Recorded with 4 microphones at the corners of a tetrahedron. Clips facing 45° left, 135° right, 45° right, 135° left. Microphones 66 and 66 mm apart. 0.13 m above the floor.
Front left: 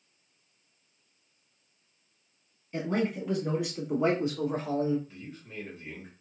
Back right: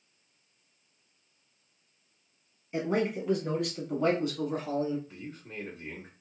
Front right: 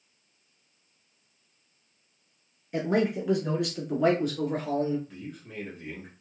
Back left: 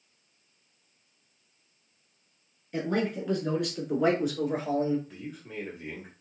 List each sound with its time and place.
2.7 s a man speaking: 90° right, 1.1 m; by 5.0 s 65° left, 1.4 m
5.1 s a man speaking: 150° right, 1.4 m